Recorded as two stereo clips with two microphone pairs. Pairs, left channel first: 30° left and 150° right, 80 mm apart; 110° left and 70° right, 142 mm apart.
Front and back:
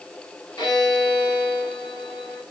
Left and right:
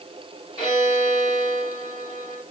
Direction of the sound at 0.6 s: 55° left.